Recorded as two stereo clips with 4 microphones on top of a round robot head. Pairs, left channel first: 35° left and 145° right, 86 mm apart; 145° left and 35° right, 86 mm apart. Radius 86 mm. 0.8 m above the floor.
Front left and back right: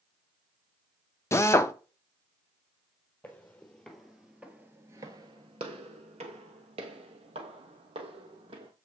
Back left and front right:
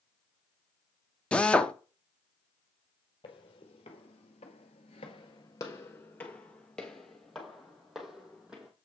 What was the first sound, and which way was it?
A drill, 75° left.